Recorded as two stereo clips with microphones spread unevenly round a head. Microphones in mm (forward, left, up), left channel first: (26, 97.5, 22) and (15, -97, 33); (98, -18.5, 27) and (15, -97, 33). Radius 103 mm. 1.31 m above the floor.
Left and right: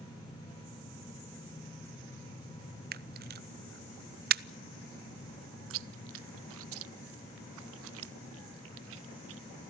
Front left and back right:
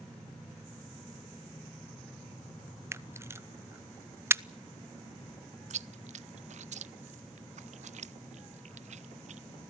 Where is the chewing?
115° right, 0.5 m.